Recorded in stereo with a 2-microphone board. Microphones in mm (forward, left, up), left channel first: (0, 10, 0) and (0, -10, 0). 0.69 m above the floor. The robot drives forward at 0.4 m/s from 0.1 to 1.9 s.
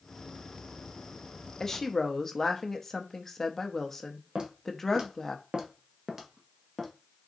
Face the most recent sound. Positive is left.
turn(degrees=5)  # may be behind; listen again after turning